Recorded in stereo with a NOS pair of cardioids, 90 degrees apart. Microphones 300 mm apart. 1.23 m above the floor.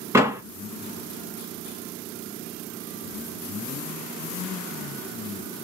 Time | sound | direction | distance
0.1 | a door slam | 10° right | 0.7 m